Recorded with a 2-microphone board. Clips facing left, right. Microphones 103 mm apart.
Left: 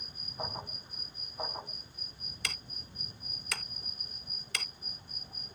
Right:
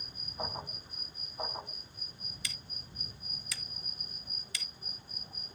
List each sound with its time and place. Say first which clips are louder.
2.4 s ticking: left 7 dB; 70° left (ahead or behind)